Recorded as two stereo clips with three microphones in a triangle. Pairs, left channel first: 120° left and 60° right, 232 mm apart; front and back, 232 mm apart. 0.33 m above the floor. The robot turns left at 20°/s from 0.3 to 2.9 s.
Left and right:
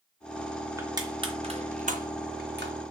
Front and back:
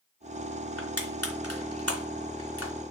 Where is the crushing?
15° left, 3 m; by 2.7 s 20° right, 3 m.